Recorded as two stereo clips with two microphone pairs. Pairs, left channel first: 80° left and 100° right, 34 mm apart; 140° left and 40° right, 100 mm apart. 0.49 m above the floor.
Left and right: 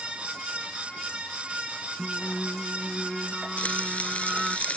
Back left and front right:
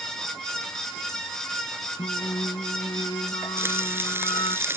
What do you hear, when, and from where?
2.0 s singing: straight behind
3.6 s frying: 30° left